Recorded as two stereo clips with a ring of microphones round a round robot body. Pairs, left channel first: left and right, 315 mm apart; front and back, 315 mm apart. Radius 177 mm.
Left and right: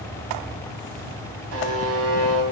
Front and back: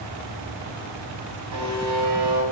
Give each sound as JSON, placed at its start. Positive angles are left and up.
{"t": 1.5, "sound": "a buzzer", "azimuth_deg": -135, "distance_m": 3.5}